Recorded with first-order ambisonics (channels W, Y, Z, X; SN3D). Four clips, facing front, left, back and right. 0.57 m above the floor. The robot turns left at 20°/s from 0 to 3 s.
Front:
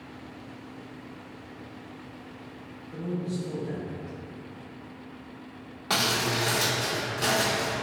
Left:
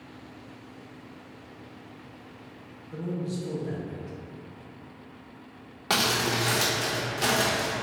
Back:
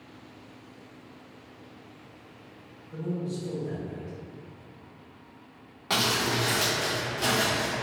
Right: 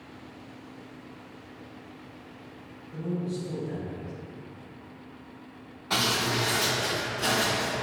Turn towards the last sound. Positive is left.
turn(degrees=80)